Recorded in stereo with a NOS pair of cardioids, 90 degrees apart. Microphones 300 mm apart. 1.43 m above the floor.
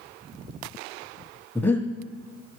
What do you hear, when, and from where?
1.6 s breathing: 5° left, 0.9 m